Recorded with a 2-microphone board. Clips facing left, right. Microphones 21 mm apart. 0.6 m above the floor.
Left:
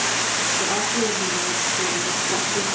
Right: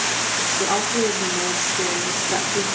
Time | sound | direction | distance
0.6 | a woman speaking | 45° right (ahead or behind) | 1.9 m